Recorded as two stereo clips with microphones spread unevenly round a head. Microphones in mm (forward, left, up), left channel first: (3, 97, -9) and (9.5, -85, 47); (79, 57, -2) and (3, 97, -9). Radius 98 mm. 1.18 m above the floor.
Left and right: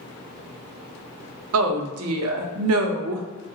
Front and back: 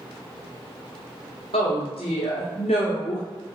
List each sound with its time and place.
1.5 s a woman speaking: 85° right, 0.5 m